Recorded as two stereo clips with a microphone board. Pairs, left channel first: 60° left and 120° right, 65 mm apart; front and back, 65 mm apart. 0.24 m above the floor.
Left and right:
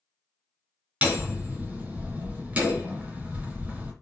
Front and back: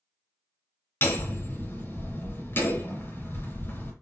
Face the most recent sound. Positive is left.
turn(degrees=-55)